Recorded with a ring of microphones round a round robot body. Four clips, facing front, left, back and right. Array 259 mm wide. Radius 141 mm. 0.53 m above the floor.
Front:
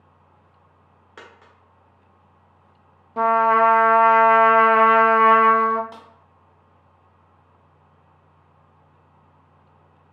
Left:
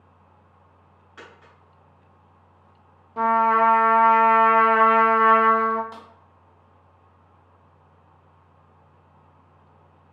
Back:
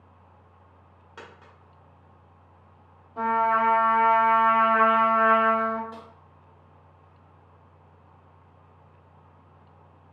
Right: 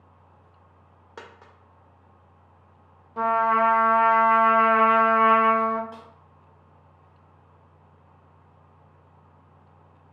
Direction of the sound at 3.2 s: Straight ahead.